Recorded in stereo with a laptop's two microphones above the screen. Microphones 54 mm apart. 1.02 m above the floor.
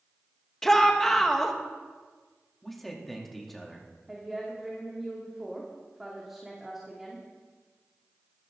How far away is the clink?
No clink in this recording.